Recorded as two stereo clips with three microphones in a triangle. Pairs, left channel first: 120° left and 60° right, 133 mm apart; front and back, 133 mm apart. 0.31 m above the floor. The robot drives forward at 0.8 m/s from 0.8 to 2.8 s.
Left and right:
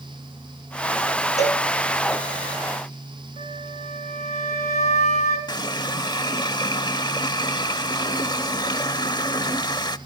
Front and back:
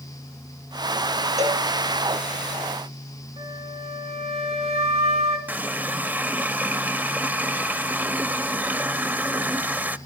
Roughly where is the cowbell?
Behind left.